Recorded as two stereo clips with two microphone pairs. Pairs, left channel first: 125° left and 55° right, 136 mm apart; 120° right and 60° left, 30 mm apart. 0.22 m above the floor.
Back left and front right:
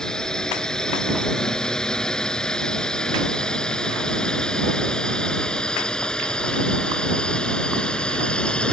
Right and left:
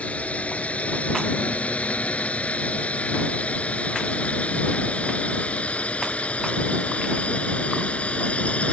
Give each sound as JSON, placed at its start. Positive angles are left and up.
{"t": 0.0, "sound": "a drone", "azimuth_deg": -150}